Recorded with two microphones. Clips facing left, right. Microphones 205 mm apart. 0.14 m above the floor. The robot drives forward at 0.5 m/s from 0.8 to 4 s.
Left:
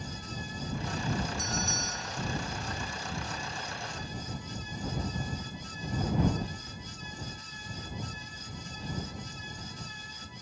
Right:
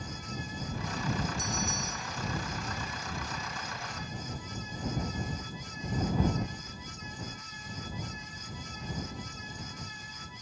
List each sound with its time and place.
1.4 s a bell: 70° left (ahead or behind); by 2.2 s 75° left (ahead or behind)